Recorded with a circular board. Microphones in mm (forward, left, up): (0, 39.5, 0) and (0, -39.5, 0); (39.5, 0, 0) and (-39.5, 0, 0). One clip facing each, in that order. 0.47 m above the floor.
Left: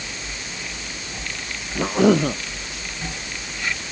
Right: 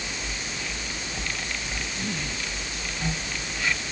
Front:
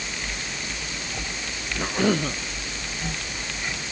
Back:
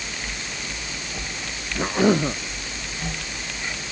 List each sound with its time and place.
1.8 s a cough: 105° left